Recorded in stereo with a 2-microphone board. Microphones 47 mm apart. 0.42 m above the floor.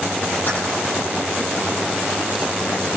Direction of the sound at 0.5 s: 45° left (ahead or behind).